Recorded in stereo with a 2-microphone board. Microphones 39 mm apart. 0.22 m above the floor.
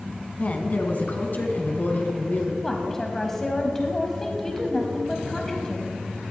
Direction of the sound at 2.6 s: 15° left (ahead or behind).